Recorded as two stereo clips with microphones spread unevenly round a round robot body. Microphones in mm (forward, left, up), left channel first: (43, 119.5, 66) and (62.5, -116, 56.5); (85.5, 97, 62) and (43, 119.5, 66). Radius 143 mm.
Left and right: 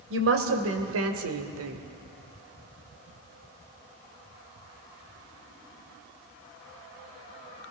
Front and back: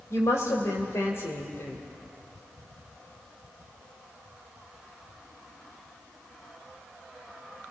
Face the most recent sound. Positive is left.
turn(degrees=-80)